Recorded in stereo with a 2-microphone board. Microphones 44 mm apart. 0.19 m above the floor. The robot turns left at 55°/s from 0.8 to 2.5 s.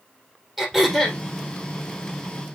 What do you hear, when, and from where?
0.6 s throat clearing: 5° right (ahead or behind), 3 m; by 1.2 s 20° left (ahead or behind), 3 m